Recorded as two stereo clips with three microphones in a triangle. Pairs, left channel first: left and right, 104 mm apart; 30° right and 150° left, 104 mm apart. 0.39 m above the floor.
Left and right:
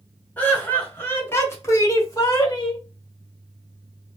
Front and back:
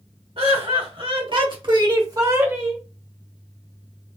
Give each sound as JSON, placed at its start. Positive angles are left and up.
{"t": 0.4, "sound": "laughter", "azimuth_deg": 160, "distance_m": 1.6}